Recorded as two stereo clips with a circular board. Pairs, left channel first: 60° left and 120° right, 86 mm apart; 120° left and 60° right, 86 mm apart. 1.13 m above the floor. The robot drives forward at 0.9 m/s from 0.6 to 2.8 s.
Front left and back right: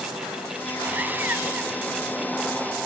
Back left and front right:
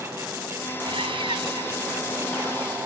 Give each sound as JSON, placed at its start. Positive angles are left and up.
{"t": 0.8, "sound": "sawing", "azimuth_deg": -50}